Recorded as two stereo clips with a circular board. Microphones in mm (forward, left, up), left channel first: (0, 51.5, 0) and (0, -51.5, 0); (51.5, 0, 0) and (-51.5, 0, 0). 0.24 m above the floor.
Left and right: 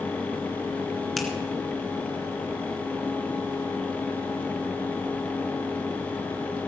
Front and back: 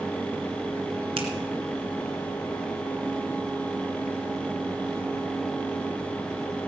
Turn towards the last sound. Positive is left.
turn(degrees=180)